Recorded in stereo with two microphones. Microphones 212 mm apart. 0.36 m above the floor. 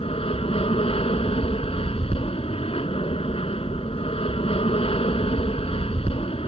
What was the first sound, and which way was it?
An aircraft, 25° left (ahead or behind).